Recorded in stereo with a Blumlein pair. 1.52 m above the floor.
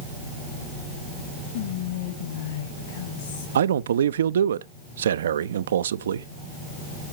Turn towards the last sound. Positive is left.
turn(degrees=-65)